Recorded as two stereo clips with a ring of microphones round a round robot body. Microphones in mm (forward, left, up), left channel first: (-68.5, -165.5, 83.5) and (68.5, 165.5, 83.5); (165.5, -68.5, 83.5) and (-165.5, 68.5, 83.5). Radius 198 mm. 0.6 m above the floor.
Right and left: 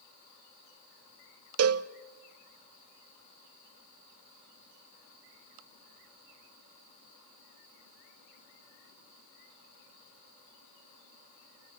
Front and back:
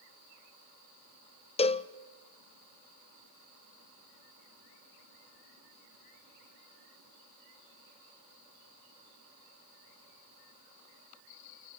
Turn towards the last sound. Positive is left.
turn(degrees=45)